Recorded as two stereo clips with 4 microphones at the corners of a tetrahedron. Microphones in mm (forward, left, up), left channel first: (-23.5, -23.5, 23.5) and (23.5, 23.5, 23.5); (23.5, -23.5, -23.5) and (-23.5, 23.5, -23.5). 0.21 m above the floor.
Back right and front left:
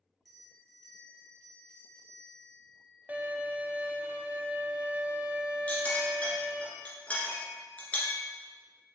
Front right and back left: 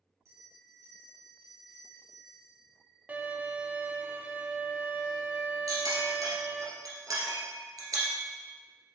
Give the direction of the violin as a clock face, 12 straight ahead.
9 o'clock.